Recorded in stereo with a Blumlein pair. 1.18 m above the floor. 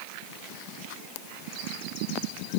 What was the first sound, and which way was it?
Only background noise.